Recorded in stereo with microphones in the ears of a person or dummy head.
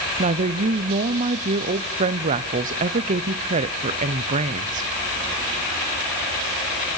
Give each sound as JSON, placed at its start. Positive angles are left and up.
{"t": 0.2, "sound": "a woman speaking", "side_deg": -35, "distance_m": 0.9}